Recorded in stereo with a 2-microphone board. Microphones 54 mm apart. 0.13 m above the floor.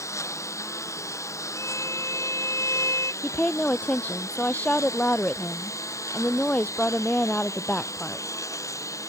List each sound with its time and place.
0.0 s a lawn mower: 60° left (ahead or behind); by 9.1 s 65° left (ahead or behind)
1.6 s a violin: 65° left (ahead or behind)
3.2 s a woman speaking: 25° left (ahead or behind)